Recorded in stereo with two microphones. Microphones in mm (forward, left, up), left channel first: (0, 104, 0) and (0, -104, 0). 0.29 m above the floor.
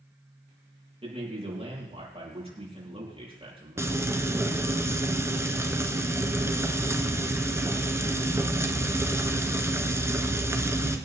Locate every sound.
1.0 s a man speaking: 30° right (ahead or behind), 8 m
3.8 s frying: 10° right (ahead or behind), 1.5 m